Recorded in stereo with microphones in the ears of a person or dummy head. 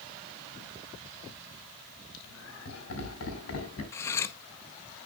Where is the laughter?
80° left, 4 m; by 3.8 s 90° left, 5.5 m.